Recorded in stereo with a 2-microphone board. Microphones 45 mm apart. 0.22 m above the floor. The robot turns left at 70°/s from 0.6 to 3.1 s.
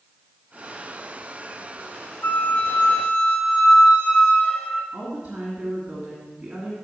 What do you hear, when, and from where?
2.2 s a flute: 95° left, 1.1 m; by 4.8 s 35° left, 1.1 m
4.9 s a woman speaking: 15° right (ahead or behind), 2.0 m